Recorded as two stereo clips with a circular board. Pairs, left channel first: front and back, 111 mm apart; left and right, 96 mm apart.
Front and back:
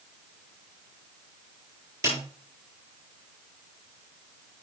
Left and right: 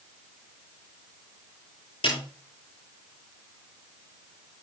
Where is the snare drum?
110° left, 7.5 m.